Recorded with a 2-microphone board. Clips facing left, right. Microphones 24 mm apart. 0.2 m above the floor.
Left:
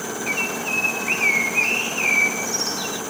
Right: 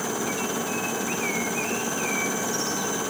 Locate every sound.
0.3 s a bird: 50° left (ahead or behind)